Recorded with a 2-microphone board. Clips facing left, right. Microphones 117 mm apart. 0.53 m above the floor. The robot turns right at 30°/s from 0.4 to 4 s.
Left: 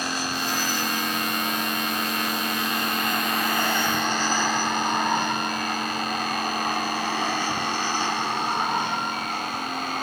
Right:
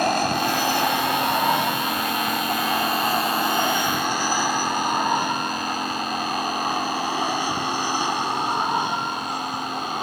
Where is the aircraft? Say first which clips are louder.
Right 8 dB; 55° right (ahead or behind); by 10.0 s 15° right (ahead or behind).